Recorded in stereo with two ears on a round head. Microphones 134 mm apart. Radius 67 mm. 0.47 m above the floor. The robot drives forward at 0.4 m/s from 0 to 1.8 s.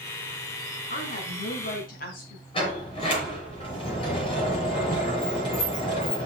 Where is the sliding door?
35° left (ahead or behind), 5 m.